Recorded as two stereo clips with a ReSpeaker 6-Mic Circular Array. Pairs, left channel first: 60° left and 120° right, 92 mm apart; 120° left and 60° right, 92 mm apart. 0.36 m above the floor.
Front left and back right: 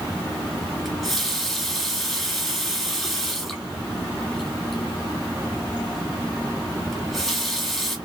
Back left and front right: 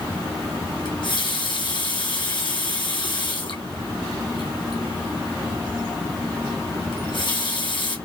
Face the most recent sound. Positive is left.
turn(degrees=150)